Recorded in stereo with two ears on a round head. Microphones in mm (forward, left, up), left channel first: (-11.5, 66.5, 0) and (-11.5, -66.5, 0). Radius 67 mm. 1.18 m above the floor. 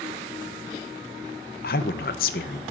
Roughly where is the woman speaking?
Left.